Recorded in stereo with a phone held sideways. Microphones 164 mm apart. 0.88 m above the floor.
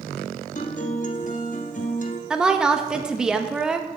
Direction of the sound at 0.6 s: 50° left (ahead or behind).